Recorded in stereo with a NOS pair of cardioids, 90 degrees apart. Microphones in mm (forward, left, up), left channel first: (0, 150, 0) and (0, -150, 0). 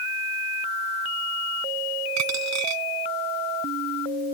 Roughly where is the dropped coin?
Right.